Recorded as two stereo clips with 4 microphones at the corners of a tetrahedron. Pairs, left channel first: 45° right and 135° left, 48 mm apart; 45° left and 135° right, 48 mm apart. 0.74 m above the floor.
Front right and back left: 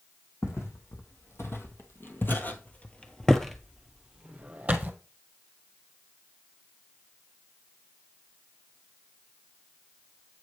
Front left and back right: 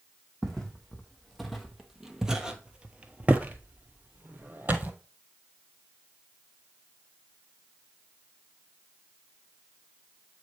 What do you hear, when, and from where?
0.4 s footsteps: 40° right, 1.7 m; by 4.9 s 175° right, 1.2 m